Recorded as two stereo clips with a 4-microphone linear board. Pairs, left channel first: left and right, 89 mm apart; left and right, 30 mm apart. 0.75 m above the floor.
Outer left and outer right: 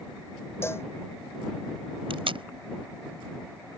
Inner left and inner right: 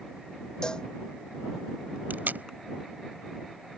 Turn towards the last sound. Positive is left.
turn(degrees=-80)